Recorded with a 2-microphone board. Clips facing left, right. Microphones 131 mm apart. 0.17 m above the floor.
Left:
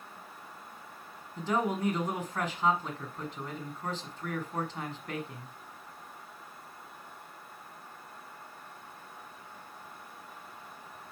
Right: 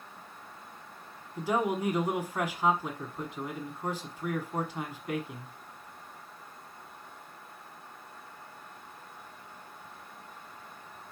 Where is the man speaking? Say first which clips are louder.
Right 1 dB; 10° right (ahead or behind), 1.1 m.